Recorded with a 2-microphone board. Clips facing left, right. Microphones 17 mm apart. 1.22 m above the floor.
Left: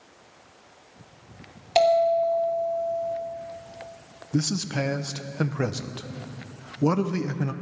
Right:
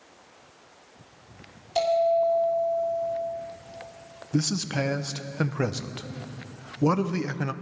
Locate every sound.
1.8 s a bell: 75° left (ahead or behind), 3 m
4.3 s a man speaking: 25° right (ahead or behind), 0.6 m